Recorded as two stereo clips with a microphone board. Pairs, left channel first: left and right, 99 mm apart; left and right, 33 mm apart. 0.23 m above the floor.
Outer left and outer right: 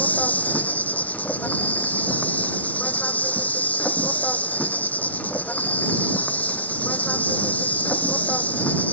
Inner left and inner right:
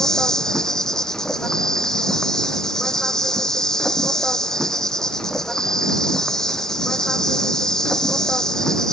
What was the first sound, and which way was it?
An insect, 15° left (ahead or behind).